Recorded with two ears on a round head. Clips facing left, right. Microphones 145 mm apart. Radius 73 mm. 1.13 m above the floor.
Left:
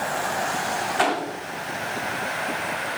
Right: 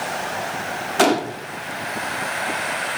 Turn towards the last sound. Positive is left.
turn(degrees=-50)  # may be behind; listen again after turning